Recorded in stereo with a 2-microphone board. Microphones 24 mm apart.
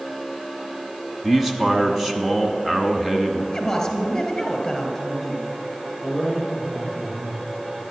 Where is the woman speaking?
10° left (ahead or behind), 2.5 m.